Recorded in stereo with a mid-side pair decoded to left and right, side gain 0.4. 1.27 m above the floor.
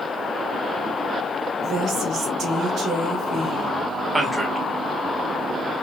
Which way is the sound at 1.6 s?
70° right.